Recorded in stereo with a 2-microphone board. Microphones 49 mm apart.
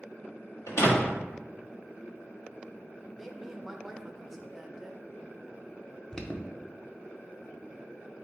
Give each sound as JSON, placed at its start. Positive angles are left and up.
{"t": 0.7, "sound": "a door slam", "side_deg": 85, "distance_m": 1.3}
{"t": 3.2, "sound": "a woman speaking", "side_deg": 0, "distance_m": 0.6}
{"t": 6.1, "sound": "an alarm", "side_deg": 15, "distance_m": 0.5}